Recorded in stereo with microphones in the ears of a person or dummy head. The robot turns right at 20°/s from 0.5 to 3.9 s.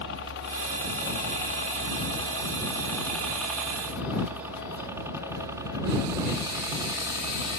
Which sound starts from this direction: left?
A helicopter, at 0.0 s.